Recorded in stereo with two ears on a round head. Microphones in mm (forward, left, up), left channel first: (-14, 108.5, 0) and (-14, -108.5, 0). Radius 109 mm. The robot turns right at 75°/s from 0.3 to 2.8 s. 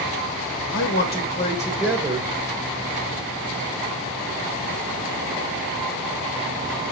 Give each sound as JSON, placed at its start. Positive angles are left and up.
{"t": 0.7, "sound": "a man speaking", "azimuth_deg": 100, "distance_m": 1.4}